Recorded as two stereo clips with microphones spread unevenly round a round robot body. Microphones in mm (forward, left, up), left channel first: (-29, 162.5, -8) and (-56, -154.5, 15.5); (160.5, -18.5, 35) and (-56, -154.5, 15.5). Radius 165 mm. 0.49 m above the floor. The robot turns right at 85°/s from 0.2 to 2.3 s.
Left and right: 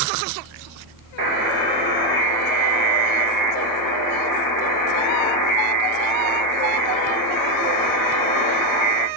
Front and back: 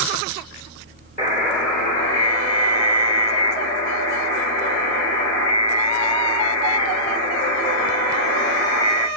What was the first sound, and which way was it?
A buzzer, 25° right.